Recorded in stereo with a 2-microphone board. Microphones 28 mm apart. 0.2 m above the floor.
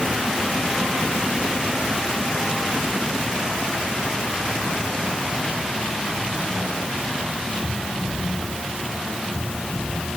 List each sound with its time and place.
Only background noise.